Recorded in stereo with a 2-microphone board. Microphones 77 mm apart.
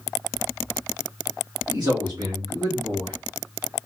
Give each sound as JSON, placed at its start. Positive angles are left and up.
{"t": 1.7, "sound": "a man speaking", "side_deg": -60, "distance_m": 1.8}